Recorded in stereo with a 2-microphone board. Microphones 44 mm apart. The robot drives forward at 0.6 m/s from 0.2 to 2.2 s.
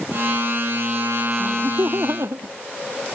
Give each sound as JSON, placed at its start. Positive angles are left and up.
{"t": 1.4, "sound": "laughter", "side_deg": -80}